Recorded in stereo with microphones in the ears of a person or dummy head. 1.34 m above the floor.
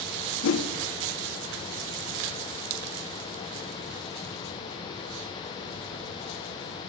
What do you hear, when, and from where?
0.4 s a whoosh: 65° left (ahead or behind), 0.8 m